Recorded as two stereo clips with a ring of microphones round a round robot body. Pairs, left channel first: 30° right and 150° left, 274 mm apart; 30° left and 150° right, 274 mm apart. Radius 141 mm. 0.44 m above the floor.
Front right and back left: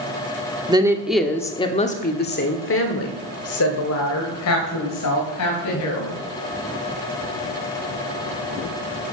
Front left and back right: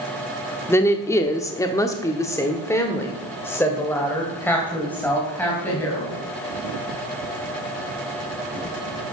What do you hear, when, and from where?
0.7 s a woman speaking: 100° left, 1.1 m; by 6.2 s 55° right, 3.5 m